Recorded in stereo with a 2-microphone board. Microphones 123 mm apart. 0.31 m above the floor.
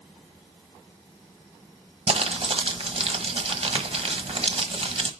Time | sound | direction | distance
2.1 | crumpling | 55° right (ahead or behind) | 1.3 m